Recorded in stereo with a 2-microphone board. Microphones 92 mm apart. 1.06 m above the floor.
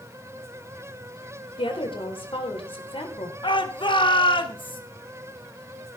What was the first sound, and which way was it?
A woman speaking, 80° left.